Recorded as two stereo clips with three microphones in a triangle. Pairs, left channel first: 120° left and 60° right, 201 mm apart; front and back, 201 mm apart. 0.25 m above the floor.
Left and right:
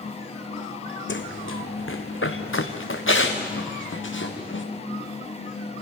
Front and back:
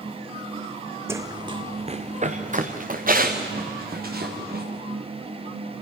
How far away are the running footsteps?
About 1.0 m.